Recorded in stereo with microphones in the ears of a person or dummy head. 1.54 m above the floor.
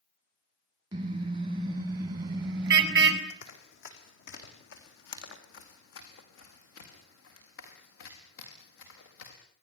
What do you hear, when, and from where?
0.9 s a car horn: 20° right (ahead or behind), 6.5 m
3.3 s running footsteps: 55° left (ahead or behind), 4.5 m; by 9.3 s 80° left, 8.5 m